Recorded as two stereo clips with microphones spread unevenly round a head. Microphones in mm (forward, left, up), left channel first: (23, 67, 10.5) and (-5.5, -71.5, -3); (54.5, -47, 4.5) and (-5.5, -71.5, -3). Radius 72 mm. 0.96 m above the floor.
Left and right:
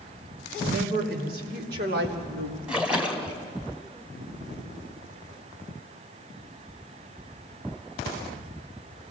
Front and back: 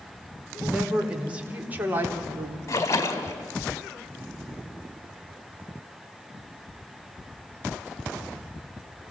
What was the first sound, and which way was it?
A woman speaking, 80° right.